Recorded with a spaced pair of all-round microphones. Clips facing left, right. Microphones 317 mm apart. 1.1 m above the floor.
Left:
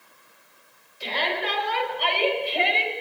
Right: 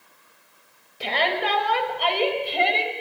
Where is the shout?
80° right, 6 m; by 2.9 s 55° right (ahead or behind), 6.5 m.